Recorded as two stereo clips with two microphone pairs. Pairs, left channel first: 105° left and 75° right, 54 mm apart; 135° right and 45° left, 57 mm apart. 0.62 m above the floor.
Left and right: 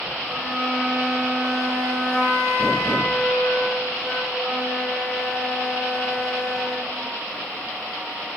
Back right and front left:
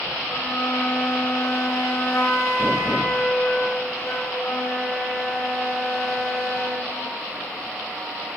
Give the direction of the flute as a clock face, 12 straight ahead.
5 o'clock.